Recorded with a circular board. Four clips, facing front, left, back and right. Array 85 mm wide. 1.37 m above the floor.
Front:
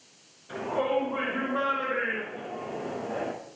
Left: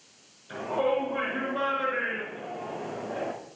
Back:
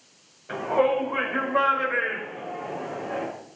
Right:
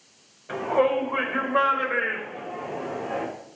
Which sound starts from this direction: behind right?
A shout, at 0.5 s.